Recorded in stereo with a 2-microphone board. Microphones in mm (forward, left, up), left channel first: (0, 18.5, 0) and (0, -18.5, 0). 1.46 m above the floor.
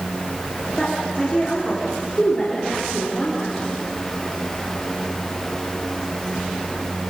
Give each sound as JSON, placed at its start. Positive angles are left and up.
{"t": 0.8, "sound": "a woman speaking", "side_deg": 20, "distance_m": 4.0}